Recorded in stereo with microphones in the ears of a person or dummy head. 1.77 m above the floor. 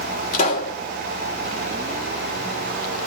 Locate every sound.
0.3 s a pop: 55° left (ahead or behind), 2.5 m